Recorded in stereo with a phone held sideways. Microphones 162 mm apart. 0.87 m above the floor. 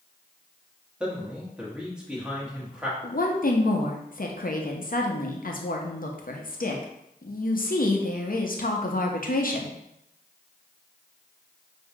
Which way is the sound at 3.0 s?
65° left (ahead or behind).